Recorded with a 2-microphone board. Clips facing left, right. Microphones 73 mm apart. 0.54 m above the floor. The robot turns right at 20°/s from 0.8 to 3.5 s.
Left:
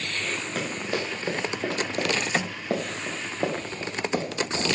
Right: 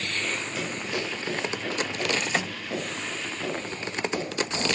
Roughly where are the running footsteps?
Left.